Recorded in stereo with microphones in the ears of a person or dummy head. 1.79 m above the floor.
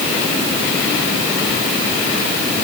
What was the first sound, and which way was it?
Only background noise.